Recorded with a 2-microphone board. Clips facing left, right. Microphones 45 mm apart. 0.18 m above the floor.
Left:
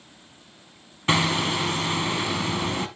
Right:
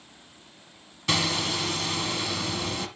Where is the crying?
No crying in this recording.